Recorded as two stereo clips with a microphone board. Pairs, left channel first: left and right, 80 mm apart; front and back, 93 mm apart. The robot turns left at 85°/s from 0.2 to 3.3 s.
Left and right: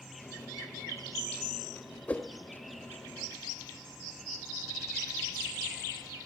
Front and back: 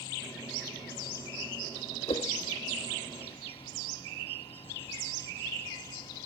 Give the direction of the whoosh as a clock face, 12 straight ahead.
11 o'clock.